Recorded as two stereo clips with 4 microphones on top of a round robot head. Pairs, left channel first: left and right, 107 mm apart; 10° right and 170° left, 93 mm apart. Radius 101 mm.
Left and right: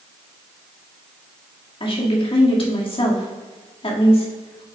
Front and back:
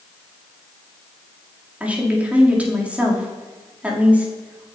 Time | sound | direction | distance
1.8 | a woman speaking | 100° left | 1.9 m